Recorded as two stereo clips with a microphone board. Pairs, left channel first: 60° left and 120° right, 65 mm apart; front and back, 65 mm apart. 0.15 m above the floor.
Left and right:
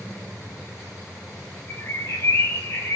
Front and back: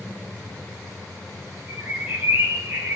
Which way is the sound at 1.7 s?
115° left.